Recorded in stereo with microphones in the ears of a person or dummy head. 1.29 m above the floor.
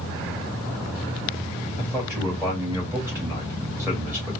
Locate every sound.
1.8 s a man speaking: 10° right (ahead or behind), 1.9 m